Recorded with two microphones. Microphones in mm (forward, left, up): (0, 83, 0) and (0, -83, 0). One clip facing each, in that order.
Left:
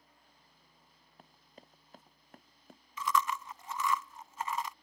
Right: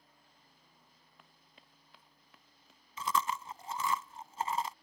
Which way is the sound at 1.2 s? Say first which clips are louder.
Left 9 dB; 40° left (ahead or behind).